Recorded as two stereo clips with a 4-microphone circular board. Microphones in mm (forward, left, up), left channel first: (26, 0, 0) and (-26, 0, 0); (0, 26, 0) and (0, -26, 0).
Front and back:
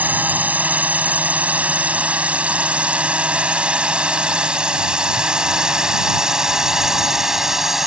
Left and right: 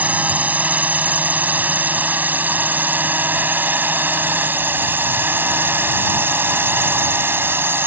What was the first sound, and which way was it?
A drone, 135° right.